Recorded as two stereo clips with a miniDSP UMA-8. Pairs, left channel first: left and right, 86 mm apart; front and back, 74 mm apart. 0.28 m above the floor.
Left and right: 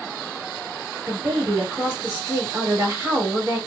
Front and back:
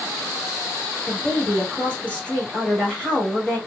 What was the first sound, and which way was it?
A woman speaking, 55° right.